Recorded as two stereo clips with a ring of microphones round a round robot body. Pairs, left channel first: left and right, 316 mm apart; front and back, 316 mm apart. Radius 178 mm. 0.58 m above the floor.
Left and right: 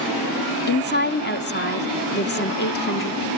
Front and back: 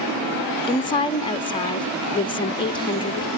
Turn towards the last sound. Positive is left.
turn(degrees=65)